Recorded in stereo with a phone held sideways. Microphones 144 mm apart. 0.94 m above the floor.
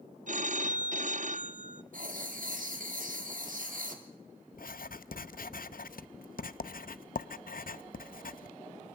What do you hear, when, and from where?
0.3 s a phone ringing: 60° right (ahead or behind), 0.7 m
1.9 s writing: 65° right (ahead or behind), 2.5 m
4.5 s writing: 80° left, 0.6 m